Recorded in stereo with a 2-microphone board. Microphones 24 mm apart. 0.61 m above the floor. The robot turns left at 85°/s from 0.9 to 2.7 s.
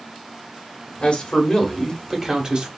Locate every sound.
1.0 s a man speaking: 90° left, 1.1 m; by 2.7 s 55° right, 1.1 m